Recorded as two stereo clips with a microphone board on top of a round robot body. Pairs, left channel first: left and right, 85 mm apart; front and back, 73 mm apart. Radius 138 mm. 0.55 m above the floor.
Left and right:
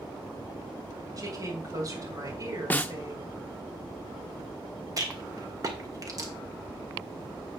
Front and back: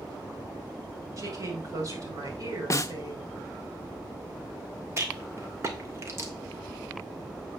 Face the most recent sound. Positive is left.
turn(degrees=-135)